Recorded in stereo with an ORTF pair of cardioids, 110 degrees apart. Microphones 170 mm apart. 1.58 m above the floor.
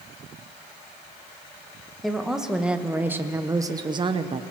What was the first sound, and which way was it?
A woman speaking, straight ahead.